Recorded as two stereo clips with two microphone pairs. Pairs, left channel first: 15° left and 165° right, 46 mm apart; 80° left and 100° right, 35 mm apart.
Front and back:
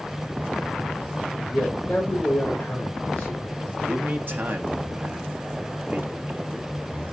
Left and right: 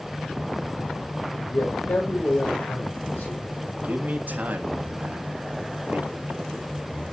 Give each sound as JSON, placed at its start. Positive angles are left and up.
{"t": 1.3, "sound": "a man speaking", "azimuth_deg": 90, "distance_m": 4.0}
{"t": 3.8, "sound": "a man speaking", "azimuth_deg": -130, "distance_m": 1.6}